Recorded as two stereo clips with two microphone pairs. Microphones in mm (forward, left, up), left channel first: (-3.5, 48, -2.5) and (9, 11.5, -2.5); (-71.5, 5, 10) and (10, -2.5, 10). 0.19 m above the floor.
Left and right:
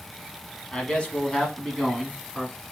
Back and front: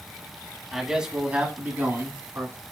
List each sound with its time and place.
0.7 s a man speaking: 80° left, 1.4 m; by 2.5 s 15° left, 1.6 m